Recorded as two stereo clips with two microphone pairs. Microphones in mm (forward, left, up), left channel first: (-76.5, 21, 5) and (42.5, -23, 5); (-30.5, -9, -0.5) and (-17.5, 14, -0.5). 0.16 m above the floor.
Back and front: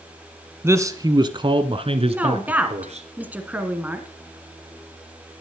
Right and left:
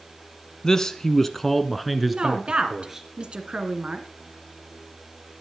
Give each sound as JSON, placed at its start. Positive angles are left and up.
{"t": 0.6, "sound": "a man speaking", "azimuth_deg": -75, "distance_m": 1.2}
{"t": 2.1, "sound": "a woman speaking", "azimuth_deg": 50, "distance_m": 2.0}